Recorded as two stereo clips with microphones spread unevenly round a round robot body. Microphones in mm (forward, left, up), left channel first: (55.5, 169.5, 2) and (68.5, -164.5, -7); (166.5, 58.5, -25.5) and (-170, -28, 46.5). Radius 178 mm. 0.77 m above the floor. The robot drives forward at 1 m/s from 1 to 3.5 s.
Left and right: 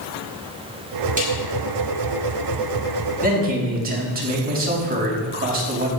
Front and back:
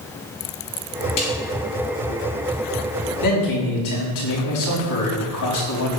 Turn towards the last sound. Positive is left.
turn(degrees=-25)